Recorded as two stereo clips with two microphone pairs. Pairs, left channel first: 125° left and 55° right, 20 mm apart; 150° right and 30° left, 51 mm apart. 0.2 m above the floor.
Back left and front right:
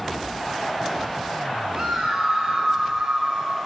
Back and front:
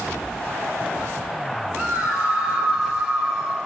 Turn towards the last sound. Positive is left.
turn(degrees=-55)